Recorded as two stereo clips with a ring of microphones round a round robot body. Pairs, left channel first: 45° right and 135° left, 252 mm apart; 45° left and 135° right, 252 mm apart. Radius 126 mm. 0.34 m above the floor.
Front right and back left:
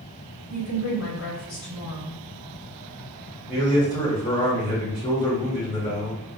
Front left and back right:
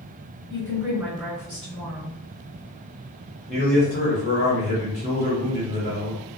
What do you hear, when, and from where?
0.5 s a woman speaking: 40° right, 1.8 m
3.5 s a man speaking: 50° left, 1.5 m